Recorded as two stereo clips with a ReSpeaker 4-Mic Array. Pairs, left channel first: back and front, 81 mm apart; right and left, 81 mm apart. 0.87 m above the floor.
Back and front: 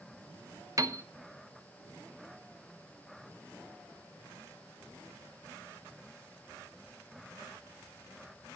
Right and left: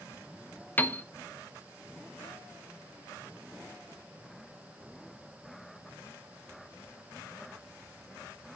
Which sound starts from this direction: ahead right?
A piano, at 0.8 s.